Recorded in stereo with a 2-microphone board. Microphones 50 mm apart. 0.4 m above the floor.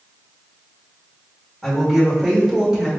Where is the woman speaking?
Centre (ahead or behind), 1.2 m; by 2.9 s 15° right (ahead or behind), 1.6 m.